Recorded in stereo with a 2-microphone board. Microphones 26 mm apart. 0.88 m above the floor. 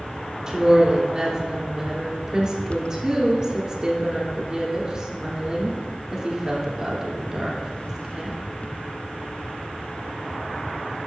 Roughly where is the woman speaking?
Right.